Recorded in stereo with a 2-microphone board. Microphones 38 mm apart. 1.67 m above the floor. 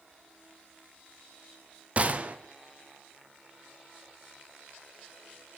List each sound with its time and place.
2.0 s a gunshot: 40° right (ahead or behind), 0.6 m